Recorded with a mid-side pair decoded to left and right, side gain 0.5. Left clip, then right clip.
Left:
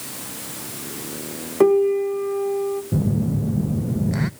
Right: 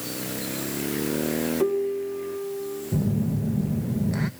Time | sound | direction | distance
1.6 | a piano | 60° left | 1.0 m
2.9 | a phone buzzing | 20° left | 0.6 m